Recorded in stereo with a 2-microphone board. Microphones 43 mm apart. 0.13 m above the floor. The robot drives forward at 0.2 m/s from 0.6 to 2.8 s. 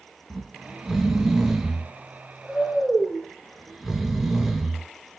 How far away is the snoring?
About 0.9 m.